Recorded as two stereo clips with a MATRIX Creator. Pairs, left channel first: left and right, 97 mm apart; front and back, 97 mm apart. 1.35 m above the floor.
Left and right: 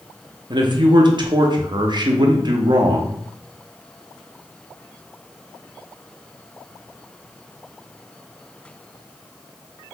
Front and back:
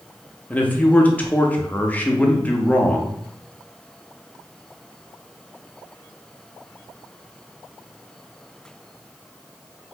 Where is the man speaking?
70° right, 0.6 m.